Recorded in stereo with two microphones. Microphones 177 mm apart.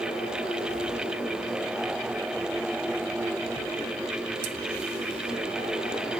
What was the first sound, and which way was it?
Only background noise.